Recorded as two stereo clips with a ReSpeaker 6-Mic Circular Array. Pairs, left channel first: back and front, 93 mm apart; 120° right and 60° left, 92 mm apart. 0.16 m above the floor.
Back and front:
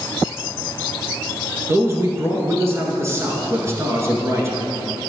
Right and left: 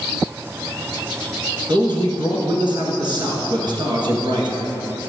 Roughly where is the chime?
No chime in this recording.